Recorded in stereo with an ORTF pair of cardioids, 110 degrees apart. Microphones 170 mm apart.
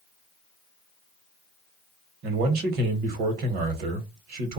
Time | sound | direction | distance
2.2 | a man speaking | 65° right | 1.3 m